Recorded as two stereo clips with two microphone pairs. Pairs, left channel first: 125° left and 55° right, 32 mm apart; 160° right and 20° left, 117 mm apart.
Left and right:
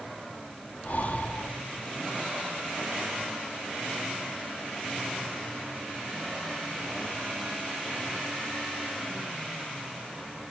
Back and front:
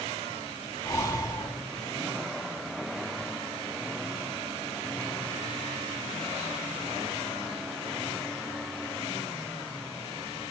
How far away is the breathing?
About 1.6 m.